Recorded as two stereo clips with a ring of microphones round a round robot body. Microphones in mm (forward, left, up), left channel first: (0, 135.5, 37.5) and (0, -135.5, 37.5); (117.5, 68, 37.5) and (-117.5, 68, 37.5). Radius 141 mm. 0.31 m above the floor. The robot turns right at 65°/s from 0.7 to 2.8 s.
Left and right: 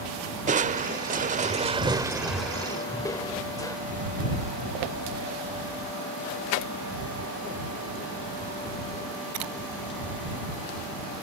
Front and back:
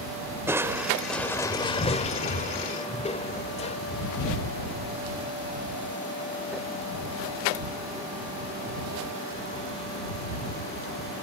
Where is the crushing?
110° right; by 3.8 s 25° left.